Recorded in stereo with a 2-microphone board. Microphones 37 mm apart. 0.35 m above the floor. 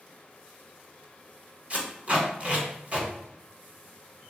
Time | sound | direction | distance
1.7 | tape being pulled | 35° right (ahead or behind) | 0.9 m